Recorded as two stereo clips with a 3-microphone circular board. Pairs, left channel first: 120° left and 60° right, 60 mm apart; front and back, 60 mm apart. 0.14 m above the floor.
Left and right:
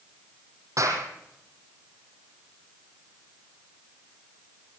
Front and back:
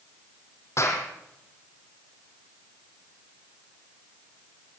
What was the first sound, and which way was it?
A clap, 40° right.